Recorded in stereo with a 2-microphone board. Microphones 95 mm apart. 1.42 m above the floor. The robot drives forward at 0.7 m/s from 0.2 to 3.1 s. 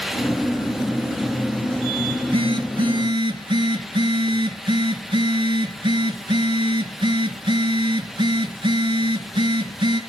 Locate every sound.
2.1 s a phone buzzing: 70° right (ahead or behind), 2 m; by 10.0 s 50° right (ahead or behind), 2.5 m